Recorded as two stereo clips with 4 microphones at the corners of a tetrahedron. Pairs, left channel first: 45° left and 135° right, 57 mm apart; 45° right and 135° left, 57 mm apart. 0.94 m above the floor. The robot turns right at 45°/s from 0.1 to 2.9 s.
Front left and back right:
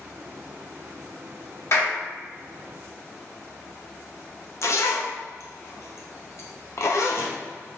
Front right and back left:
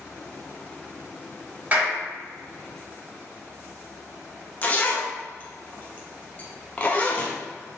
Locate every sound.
1.7 s a clap: 80° left, 1.7 m; by 2.0 s 90° left, 1.7 m
4.6 s a zipper: 20° left, 0.6 m